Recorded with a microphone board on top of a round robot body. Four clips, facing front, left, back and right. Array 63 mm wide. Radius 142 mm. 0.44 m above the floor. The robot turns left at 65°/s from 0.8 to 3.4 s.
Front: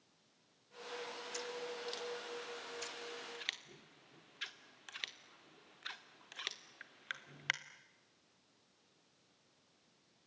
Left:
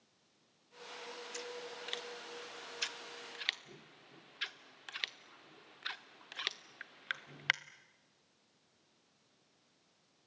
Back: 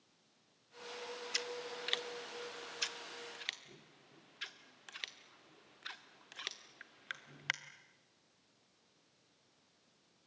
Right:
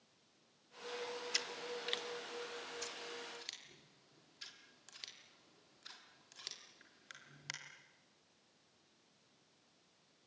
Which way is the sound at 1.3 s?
140° right.